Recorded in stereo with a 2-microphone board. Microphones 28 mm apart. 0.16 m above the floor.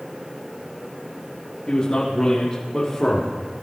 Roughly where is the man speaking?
Left.